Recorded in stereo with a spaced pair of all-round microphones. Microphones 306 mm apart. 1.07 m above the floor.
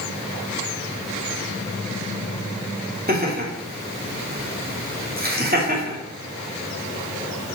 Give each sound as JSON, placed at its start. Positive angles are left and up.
{"t": 3.1, "sound": "laughter", "side_deg": -30, "distance_m": 2.0}